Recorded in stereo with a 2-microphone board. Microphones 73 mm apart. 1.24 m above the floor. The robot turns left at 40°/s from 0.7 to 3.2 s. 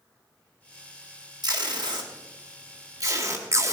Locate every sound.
1.4 s tape being pulled: 60° right (ahead or behind), 2.0 m; by 3.7 s 40° right (ahead or behind), 2.0 m